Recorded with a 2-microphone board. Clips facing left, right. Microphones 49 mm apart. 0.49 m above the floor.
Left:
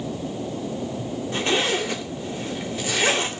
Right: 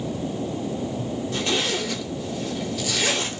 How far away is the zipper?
About 1.8 m.